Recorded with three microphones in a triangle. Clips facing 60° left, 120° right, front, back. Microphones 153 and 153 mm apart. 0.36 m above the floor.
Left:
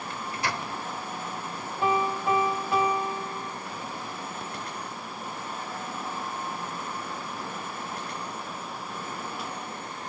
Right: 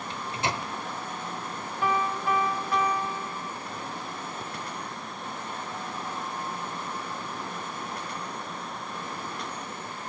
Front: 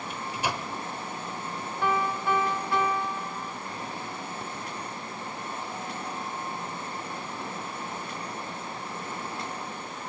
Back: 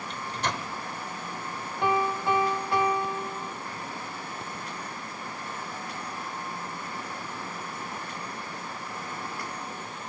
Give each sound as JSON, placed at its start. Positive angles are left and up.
{"t": 0.1, "sound": "a microwave", "azimuth_deg": -75, "distance_m": 1.0}
{"t": 1.8, "sound": "a piano", "azimuth_deg": 115, "distance_m": 1.0}